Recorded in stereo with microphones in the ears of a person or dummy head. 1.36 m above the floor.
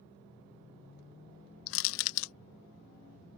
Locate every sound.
1.7 s crushing: 80° left